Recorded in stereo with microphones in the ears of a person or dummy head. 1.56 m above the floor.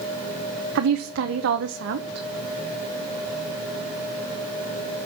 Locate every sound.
0.8 s a woman speaking: 65° right (ahead or behind), 1.1 m